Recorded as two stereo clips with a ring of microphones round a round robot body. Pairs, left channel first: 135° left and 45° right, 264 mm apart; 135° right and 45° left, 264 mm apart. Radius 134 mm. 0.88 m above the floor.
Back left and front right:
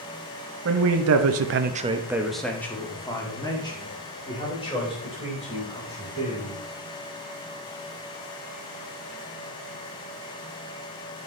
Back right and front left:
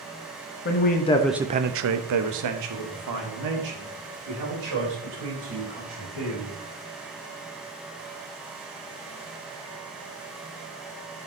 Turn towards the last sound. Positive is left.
turn(degrees=65)